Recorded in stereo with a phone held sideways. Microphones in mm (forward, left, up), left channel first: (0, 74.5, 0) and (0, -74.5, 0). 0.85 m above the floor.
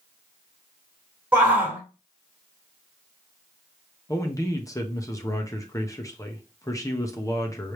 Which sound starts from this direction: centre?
A shout, at 1.3 s.